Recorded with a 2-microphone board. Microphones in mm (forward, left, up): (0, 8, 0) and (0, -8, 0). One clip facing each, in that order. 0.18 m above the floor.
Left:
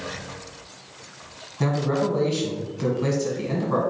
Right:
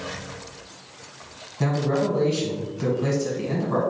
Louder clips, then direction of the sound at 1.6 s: Even; 10° left (ahead or behind).